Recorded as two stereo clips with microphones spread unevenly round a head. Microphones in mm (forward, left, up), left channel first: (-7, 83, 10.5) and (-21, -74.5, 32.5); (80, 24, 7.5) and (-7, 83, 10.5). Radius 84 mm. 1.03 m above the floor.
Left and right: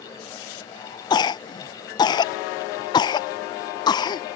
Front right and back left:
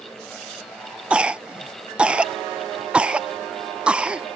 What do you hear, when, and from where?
1.1 s a cough: 70° left